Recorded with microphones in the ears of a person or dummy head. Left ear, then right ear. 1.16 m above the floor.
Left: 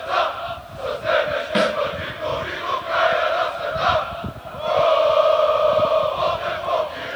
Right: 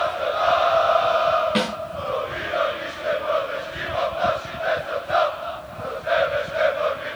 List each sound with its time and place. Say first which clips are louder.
1.6 s a snare drum: left 5 dB; 5° left (ahead or behind), 3.5 m